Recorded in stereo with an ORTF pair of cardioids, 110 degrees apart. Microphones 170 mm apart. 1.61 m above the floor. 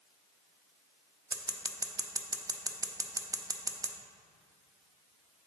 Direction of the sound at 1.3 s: 20° right.